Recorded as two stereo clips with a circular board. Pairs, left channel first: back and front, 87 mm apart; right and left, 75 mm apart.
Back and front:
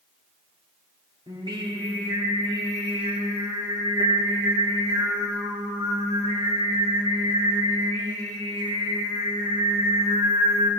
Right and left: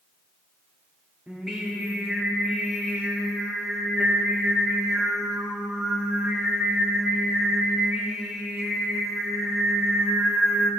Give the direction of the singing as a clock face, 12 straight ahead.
12 o'clock.